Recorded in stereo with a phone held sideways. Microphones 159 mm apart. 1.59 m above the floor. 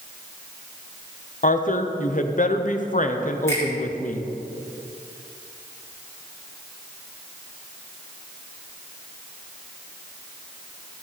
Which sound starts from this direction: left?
A woman speaking, at 1.4 s.